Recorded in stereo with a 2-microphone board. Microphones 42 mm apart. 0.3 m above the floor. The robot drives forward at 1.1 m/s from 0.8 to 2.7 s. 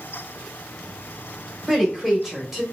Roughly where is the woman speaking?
Centre.